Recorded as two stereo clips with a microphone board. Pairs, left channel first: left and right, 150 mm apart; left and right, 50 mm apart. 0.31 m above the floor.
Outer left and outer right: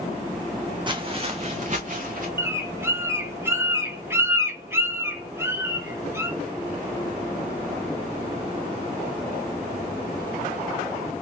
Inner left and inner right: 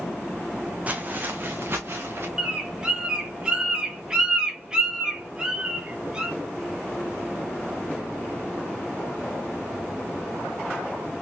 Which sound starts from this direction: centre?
A bird, at 2.4 s.